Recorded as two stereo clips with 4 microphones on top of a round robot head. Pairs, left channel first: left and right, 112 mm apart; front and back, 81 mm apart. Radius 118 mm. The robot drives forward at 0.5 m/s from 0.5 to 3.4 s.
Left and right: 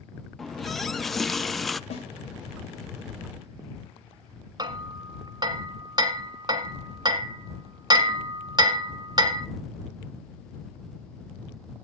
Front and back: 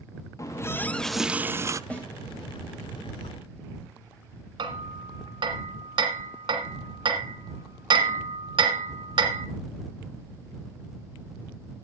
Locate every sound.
0.4 s a running tap: straight ahead, 0.6 m; by 1.8 s straight behind, 0.6 m
1.9 s a snare drum: 70° left, 3 m
4.6 s hammering: 145° right, 1.3 m